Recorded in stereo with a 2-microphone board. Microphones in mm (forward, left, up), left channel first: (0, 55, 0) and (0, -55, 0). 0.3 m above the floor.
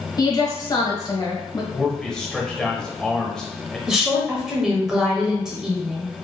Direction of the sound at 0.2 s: 40° left (ahead or behind).